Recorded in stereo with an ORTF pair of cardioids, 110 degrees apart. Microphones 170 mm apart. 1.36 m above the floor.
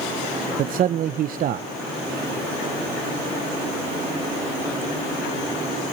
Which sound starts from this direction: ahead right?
A man speaking, at 0.6 s.